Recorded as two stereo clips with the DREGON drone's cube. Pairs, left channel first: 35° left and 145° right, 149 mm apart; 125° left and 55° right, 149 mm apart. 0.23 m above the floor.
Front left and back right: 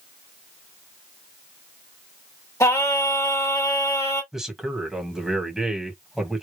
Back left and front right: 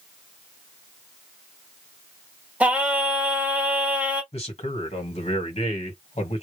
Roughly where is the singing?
Ahead.